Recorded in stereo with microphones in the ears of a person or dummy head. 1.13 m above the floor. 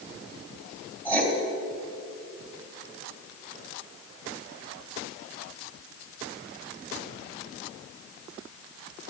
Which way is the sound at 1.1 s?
10° left (ahead or behind).